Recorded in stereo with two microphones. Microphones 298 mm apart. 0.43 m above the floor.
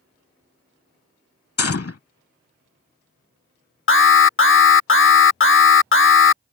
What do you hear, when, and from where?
1.6 s a gunshot: 50° left (ahead or behind)
3.9 s an alarm: 45° left (ahead or behind)